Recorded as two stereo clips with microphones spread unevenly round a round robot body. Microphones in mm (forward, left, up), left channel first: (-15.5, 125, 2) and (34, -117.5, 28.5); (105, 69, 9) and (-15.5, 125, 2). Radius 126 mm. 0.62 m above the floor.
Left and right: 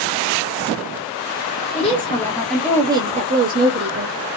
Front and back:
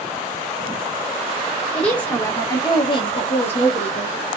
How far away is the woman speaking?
About 1.1 m.